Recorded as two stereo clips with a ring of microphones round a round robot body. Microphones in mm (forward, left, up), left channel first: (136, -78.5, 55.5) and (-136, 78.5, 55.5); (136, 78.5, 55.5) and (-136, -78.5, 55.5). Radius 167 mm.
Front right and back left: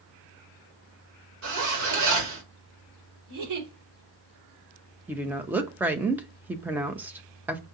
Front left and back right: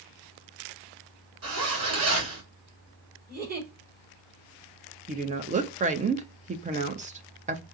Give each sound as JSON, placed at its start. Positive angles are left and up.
{"t": 1.4, "sound": "a zipper", "azimuth_deg": 175, "distance_m": 2.0}
{"t": 3.3, "sound": "a giggle", "azimuth_deg": 150, "distance_m": 3.0}
{"t": 5.1, "sound": "a woman speaking", "azimuth_deg": -135, "distance_m": 0.7}